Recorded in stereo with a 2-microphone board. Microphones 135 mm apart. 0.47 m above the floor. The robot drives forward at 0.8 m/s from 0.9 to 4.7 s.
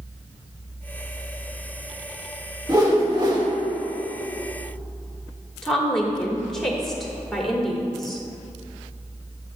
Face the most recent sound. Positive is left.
turn(degrees=5)  # may be behind; listen again after turning